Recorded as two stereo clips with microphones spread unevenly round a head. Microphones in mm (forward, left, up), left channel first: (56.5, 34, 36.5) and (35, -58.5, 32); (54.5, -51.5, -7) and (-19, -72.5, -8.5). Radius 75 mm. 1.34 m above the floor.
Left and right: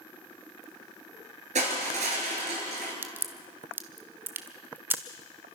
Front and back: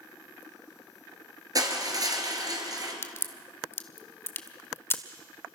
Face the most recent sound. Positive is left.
turn(degrees=-35)